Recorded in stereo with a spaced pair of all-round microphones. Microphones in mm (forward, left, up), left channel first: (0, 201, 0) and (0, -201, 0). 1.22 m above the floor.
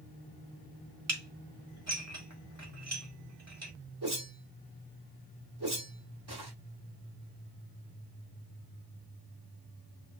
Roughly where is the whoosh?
Right.